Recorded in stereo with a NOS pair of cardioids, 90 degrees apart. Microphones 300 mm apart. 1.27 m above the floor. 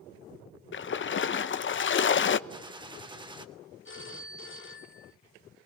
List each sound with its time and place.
0.7 s a splash: 40° left, 1.1 m
2.5 s a gunshot: 15° right, 2.5 m
3.9 s a phone ringing: 40° left, 2 m